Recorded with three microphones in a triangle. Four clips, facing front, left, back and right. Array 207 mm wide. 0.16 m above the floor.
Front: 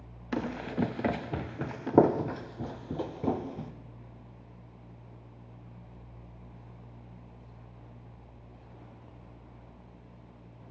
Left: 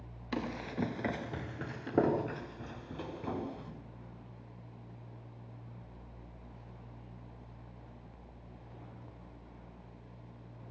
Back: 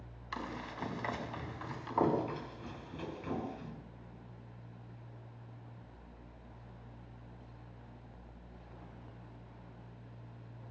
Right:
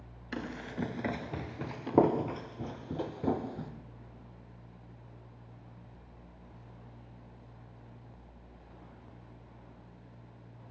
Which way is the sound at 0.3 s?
15° left.